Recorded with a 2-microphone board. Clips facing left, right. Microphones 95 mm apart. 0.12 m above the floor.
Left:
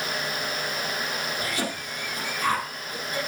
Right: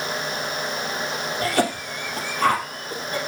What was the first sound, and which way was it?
A cough, 55° right (ahead or behind).